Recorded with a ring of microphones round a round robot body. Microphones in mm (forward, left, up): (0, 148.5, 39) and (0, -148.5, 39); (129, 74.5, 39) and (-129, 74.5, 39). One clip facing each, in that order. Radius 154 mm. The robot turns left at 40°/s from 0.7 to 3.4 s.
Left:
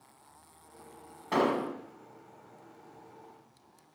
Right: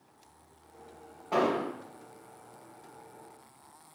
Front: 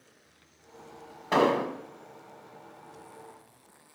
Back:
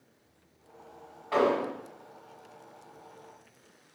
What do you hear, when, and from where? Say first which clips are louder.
1.3 s an explosion: even, front 1 dB; 30° left, 0.9 m; by 1.7 s 15° left, 0.9 m